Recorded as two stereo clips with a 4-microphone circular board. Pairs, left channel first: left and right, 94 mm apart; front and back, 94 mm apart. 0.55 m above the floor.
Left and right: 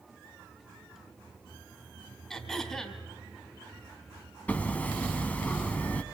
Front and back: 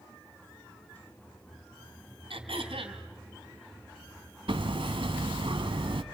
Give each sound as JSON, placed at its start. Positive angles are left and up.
{"t": 2.3, "sound": "throat clearing", "azimuth_deg": 175, "distance_m": 3.0}
{"t": 4.5, "sound": "hammering", "azimuth_deg": 165, "distance_m": 1.2}